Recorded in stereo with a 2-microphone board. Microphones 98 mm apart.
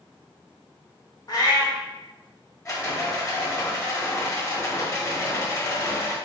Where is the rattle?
35° left (ahead or behind), 1.1 m.